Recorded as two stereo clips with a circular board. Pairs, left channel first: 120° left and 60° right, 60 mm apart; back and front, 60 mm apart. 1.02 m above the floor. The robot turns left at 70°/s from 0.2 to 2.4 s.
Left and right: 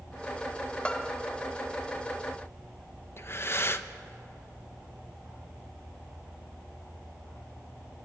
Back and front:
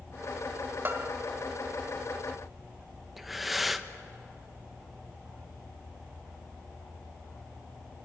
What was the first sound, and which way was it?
A bell, 50° left.